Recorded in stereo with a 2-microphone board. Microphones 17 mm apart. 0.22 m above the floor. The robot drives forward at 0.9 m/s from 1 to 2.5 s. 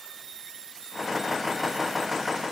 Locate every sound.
Only background noise.